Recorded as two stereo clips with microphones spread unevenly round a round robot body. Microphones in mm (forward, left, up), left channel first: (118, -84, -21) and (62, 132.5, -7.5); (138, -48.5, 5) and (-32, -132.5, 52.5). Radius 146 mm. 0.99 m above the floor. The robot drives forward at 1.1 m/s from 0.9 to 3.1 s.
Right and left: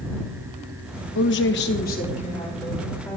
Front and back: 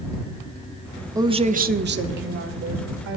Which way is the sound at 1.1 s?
75° right.